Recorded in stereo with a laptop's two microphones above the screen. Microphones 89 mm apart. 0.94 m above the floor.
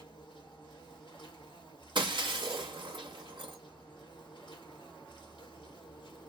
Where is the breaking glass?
60° right (ahead or behind), 0.8 m.